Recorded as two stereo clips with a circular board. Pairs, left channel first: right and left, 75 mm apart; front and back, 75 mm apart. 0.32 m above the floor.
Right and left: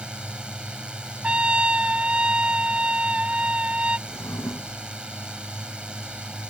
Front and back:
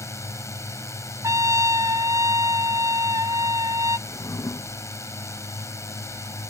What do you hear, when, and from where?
0.0 s a drone: 15° left
1.2 s a trumpet: 160° left
4.1 s a drawer: 45° right